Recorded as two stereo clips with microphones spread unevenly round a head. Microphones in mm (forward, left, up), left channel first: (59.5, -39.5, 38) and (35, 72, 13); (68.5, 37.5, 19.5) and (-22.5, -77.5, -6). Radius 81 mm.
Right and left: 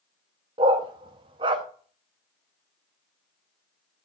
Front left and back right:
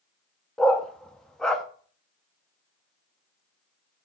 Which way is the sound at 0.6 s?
105° left.